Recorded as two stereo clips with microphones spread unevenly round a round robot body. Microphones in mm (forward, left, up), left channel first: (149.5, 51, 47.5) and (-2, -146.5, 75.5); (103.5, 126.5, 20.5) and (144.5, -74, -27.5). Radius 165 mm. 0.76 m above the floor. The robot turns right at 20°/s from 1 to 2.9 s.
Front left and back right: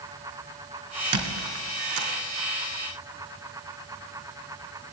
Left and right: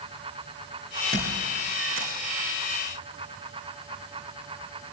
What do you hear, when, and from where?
1.1 s a squeak: 150° right, 3.5 m; by 2.1 s 130° right, 3.5 m